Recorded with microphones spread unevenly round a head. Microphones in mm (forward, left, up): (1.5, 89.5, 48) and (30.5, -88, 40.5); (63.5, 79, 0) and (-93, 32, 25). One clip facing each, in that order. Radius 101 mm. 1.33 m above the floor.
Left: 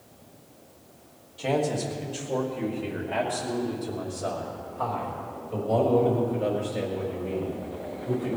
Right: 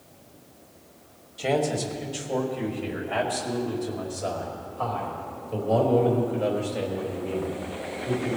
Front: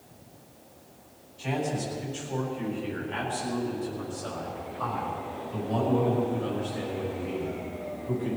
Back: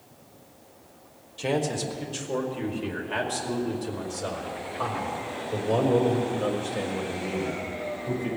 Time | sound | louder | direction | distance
1.4 | a man speaking | right 1 dB, back 3 dB | 165° right | 2.5 m